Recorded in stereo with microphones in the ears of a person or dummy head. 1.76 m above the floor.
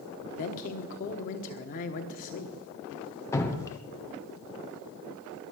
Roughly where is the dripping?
Centre.